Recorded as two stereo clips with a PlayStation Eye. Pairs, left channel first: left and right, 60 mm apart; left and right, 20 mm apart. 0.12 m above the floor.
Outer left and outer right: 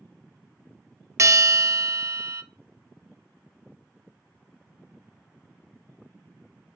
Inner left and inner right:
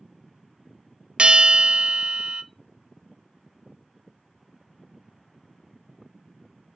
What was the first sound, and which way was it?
A bell, 60° right (ahead or behind).